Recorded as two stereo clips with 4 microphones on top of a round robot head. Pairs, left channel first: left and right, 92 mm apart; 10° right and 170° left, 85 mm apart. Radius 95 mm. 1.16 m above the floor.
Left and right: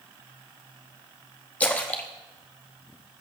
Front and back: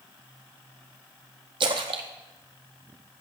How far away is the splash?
About 0.7 m.